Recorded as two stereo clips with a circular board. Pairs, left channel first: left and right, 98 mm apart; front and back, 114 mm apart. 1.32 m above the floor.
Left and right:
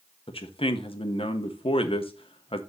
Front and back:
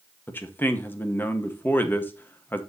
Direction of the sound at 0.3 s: 70° left.